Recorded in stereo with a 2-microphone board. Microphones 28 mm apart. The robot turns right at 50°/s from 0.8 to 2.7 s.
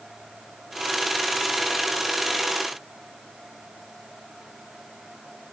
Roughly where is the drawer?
I don't hear a drawer.